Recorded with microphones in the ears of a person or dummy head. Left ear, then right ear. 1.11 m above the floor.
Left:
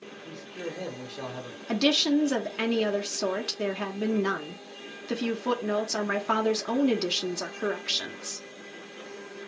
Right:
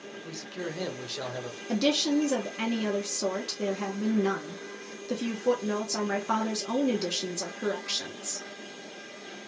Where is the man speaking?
55° right (ahead or behind), 1.1 m; by 1.6 s 15° right (ahead or behind), 1.1 m.